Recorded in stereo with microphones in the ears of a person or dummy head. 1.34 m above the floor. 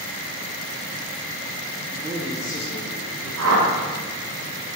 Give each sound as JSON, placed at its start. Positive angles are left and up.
{"t": 1.9, "sound": "a man speaking", "side_deg": -30, "distance_m": 0.6}
{"t": 3.4, "sound": "a whoosh", "side_deg": -75, "distance_m": 1.5}